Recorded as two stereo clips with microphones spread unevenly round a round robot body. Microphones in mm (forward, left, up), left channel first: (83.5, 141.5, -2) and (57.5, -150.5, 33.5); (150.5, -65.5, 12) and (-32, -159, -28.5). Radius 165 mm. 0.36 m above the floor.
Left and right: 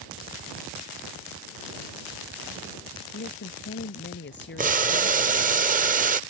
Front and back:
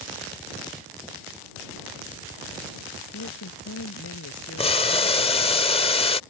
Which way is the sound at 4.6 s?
35° right.